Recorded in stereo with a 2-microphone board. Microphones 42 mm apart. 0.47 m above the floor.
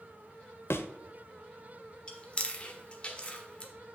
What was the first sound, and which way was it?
A thud, 70° left (ahead or behind).